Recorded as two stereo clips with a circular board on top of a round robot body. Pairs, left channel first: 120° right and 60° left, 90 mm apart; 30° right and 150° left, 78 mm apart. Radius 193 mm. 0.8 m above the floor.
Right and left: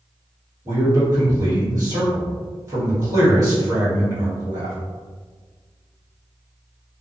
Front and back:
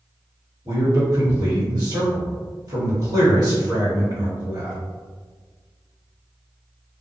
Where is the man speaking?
110° left, 1.7 m.